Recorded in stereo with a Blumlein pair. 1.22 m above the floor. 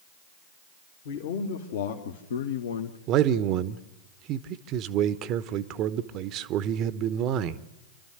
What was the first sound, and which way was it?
A man speaking, 55° left.